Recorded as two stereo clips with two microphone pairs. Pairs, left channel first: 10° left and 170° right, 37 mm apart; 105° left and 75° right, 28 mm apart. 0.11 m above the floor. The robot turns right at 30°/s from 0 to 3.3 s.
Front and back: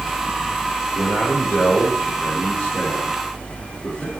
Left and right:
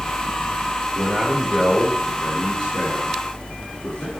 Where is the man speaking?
5° left, 5.5 m; by 4.1 s 75° left, 5.5 m.